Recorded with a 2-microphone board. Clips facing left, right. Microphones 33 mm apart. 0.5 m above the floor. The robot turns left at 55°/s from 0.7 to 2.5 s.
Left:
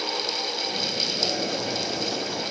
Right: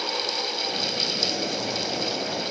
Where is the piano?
I don't hear a piano.